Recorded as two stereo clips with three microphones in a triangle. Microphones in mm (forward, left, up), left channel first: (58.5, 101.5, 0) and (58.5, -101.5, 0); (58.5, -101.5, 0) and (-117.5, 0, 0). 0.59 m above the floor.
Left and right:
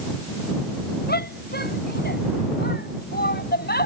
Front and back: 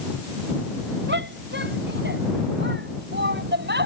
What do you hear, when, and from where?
1.1 s a shout: 125° left